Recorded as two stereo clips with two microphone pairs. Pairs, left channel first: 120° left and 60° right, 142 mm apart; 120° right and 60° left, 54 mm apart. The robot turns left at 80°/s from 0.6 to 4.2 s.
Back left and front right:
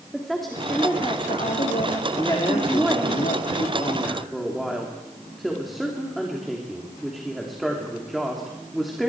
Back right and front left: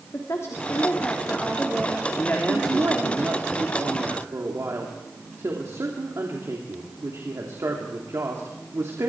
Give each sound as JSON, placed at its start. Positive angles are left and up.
{"t": 0.1, "sound": "a woman speaking", "azimuth_deg": -150, "distance_m": 3.0}
{"t": 2.2, "sound": "a woman speaking", "azimuth_deg": -165, "distance_m": 3.0}